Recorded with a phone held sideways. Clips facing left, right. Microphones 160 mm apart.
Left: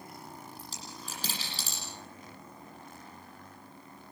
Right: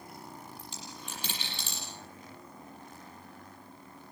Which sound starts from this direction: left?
A dropped coin, at 0.6 s.